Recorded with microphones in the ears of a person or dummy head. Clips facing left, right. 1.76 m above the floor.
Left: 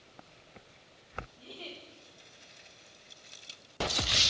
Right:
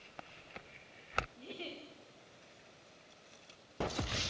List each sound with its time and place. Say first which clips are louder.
1.4 s a giggle: right 1 dB; 25° right (ahead or behind), 1.3 m